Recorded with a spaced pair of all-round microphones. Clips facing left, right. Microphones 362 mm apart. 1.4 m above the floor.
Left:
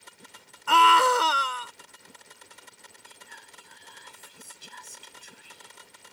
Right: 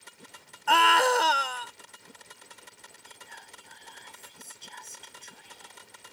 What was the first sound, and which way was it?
A scream, 10° left (ahead or behind).